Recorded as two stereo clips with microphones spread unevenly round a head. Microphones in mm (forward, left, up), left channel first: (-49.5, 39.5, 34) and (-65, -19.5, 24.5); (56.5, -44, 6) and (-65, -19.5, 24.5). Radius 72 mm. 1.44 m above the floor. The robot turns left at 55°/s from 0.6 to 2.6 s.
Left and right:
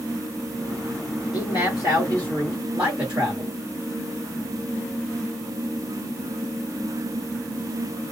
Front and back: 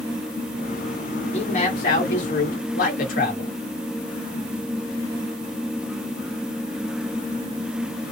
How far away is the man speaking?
About 1.3 m.